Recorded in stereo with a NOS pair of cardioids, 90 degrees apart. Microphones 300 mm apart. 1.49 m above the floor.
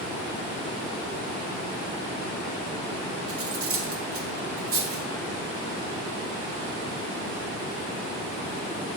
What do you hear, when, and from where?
3.3 s cutlery clinking: 50° right, 2.5 m